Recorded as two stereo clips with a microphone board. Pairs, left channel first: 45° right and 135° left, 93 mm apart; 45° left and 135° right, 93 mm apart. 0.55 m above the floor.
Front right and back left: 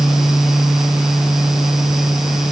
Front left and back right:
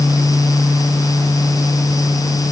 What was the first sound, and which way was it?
Only background noise.